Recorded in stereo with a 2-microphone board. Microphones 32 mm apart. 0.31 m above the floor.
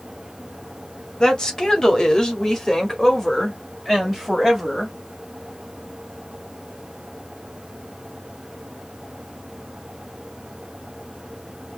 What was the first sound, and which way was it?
A woman speaking, 20° left (ahead or behind).